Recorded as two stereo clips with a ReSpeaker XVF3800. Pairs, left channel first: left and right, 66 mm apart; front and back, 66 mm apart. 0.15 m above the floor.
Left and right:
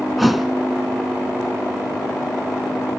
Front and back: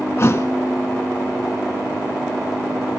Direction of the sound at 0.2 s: Straight ahead.